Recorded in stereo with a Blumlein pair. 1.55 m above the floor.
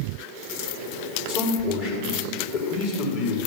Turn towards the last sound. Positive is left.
turn(degrees=50)